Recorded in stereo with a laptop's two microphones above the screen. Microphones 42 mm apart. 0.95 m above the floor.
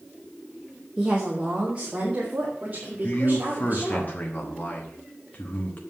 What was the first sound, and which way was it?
A woman speaking, 15° right (ahead or behind).